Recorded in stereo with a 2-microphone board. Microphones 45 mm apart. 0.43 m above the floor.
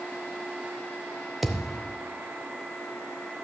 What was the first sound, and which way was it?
A thud, 5° right (ahead or behind).